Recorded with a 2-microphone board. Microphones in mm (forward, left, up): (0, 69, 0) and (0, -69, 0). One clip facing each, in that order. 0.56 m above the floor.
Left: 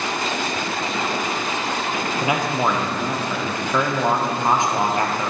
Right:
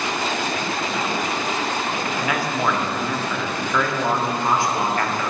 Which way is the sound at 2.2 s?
20° left (ahead or behind).